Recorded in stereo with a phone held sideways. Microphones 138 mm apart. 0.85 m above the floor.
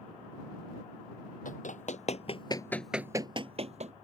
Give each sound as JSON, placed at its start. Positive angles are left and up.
{"t": 1.4, "sound": "running footsteps", "side_deg": 65}